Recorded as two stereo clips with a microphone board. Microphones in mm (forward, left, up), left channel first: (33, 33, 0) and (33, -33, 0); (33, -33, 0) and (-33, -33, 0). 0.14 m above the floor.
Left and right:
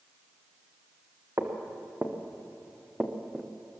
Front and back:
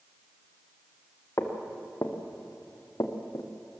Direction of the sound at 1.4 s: 40° right.